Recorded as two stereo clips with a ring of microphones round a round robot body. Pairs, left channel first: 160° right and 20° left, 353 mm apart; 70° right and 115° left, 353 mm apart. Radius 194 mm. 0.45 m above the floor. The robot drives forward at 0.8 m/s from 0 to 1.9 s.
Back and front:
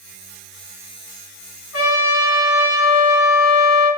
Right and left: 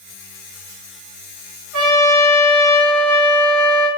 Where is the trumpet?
150° left, 3 m.